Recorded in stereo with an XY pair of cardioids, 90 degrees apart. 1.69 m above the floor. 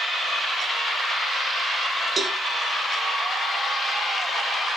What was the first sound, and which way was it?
A cowbell, 40° right.